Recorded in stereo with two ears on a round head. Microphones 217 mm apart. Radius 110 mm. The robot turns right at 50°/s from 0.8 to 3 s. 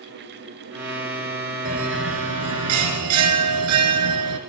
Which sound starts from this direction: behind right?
A bell, at 1.6 s.